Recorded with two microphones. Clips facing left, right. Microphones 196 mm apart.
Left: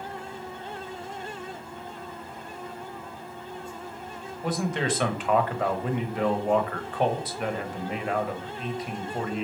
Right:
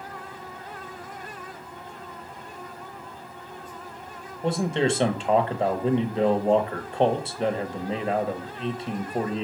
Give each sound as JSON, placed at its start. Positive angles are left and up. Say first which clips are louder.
{"t": 4.4, "sound": "a man speaking", "louder": "right 4 dB", "side_deg": -25, "distance_m": 0.9}